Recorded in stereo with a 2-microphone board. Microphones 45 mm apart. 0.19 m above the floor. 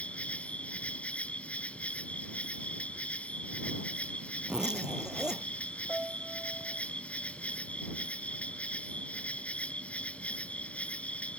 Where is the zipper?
15° right (ahead or behind).